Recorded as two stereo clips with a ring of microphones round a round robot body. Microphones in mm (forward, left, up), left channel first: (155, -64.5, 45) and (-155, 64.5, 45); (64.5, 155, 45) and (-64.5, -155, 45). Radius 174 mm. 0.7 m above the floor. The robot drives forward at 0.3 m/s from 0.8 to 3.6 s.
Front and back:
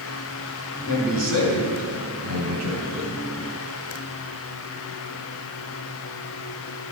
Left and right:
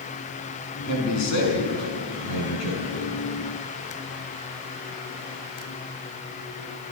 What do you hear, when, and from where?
0.9 s a man speaking: 105° left, 6.5 m; by 3.2 s 110° left, 7 m